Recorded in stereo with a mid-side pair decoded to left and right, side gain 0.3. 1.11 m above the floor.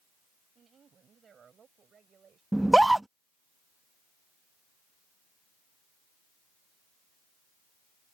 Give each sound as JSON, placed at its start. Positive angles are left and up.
{"t": 0.6, "sound": "a woman speaking", "azimuth_deg": -65}
{"t": 2.5, "sound": "a scream", "azimuth_deg": -15}